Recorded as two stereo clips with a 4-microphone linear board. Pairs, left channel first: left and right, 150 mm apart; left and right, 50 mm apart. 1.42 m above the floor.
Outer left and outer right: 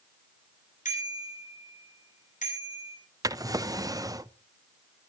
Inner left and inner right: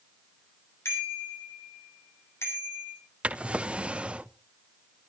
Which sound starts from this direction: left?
A bicycle bell, at 0.8 s.